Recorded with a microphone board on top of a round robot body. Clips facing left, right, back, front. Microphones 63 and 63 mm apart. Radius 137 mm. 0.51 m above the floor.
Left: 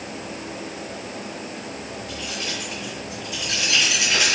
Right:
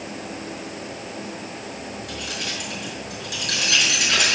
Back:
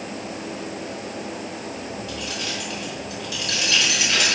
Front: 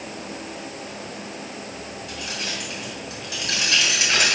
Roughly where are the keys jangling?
Ahead right.